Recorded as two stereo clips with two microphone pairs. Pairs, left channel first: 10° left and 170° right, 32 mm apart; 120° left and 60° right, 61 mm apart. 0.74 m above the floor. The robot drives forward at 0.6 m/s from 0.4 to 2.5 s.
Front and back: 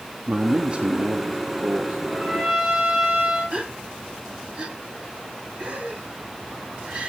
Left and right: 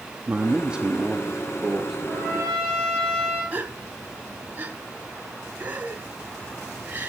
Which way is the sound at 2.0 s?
120° right.